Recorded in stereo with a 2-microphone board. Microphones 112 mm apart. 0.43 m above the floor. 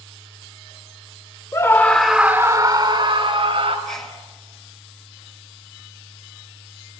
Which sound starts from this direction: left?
A scream, at 1.5 s.